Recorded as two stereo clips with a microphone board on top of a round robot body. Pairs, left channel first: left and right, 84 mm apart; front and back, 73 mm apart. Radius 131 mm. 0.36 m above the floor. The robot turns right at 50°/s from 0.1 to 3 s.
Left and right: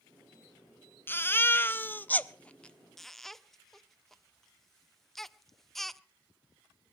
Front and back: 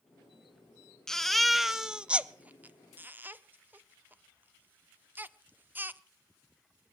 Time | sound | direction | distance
1.1 | a baby crying | 75° left | 0.9 m